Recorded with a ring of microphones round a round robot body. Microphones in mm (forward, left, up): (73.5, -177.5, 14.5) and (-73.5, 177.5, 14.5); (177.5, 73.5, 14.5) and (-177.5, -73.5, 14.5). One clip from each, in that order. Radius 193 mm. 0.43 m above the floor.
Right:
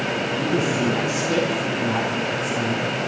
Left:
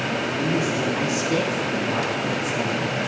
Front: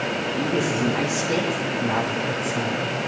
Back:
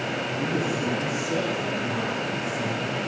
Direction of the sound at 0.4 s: 5° right.